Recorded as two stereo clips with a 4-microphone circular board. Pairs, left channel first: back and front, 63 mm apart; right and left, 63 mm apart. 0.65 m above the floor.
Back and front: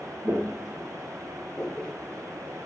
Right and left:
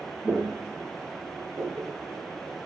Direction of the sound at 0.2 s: 40° left.